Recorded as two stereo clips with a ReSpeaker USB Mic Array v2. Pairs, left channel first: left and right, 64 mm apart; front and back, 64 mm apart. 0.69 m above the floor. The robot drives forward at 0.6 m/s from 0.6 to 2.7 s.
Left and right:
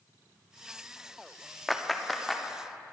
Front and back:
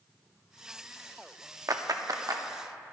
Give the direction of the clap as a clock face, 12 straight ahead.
6 o'clock.